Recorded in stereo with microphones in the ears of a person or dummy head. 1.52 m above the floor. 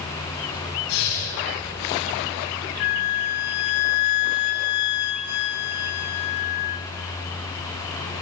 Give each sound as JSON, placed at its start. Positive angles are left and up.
{"t": 0.9, "sound": "breathing", "side_deg": 80, "distance_m": 10.0}
{"t": 2.8, "sound": "a flute", "side_deg": 55, "distance_m": 0.9}